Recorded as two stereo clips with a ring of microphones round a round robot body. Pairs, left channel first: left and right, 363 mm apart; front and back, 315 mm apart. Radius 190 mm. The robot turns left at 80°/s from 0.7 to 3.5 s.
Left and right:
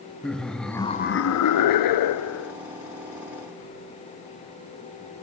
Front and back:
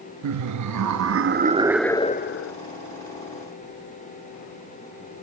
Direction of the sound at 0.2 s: Straight behind.